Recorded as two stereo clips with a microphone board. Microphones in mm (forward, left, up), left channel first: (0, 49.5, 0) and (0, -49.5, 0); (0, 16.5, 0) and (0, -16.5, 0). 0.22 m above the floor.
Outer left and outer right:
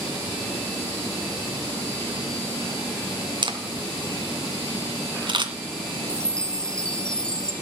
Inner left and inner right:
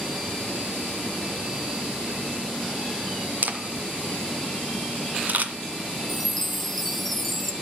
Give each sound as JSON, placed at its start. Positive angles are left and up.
{"t": 3.4, "sound": "a camera shutter", "side_deg": -55, "distance_m": 1.9}
{"t": 6.1, "sound": "a chime", "side_deg": 10, "distance_m": 1.0}